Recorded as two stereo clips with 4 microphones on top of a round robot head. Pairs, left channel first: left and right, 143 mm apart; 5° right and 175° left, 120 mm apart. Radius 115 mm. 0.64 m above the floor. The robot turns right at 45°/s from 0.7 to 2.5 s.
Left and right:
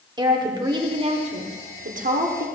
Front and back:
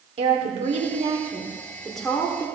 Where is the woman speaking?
145° right, 1.8 m; by 2.5 s 70° right, 1.8 m.